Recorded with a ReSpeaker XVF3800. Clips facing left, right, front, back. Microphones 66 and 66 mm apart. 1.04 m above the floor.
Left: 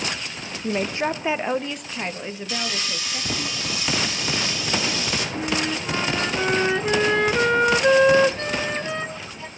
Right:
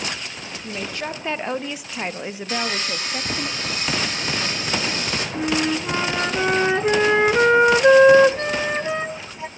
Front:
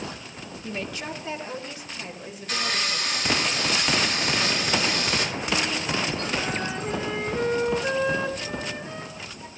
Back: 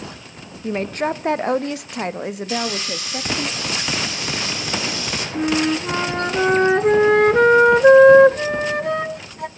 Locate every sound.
0.6 s a woman speaking: 130° left, 0.9 m; by 3.5 s 150° right, 2.5 m
2.5 s sawing: 40° right, 3.5 m
5.3 s a flute: 160° right, 0.7 m